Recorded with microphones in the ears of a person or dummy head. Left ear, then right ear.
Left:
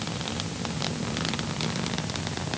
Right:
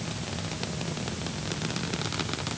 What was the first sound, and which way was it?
Only background noise.